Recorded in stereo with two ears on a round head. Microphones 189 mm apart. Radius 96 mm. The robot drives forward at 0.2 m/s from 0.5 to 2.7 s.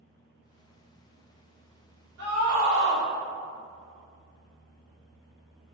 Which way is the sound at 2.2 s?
70° right (ahead or behind).